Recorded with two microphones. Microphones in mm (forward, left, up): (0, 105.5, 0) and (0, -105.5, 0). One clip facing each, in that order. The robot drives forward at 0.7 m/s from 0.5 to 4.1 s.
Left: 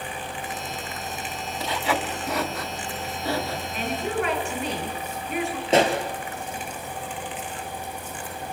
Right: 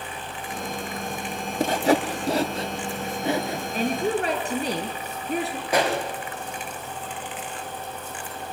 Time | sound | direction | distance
1.6 | sawing | 50° right (ahead or behind) | 0.8 m
3.7 | a woman speaking | 40° right (ahead or behind) | 4.5 m
5.7 | a pop | 25° left (ahead or behind) | 3.5 m